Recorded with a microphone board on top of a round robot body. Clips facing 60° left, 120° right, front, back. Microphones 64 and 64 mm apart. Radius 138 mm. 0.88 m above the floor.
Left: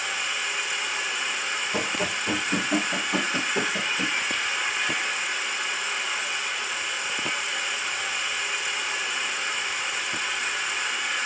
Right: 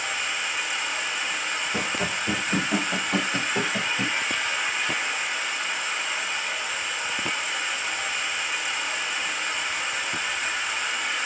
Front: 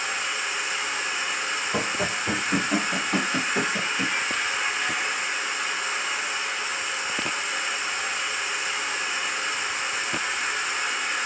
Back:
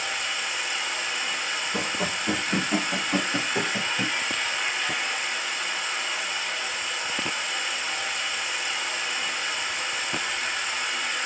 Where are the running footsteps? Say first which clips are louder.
Left 1 dB, front 2 dB; 5° right, 1.1 m; by 4.1 s 165° right, 1.1 m.